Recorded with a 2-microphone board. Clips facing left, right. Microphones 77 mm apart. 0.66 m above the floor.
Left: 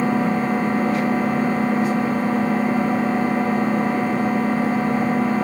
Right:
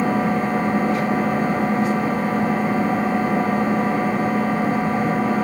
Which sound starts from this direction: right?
An engine running, at 0.0 s.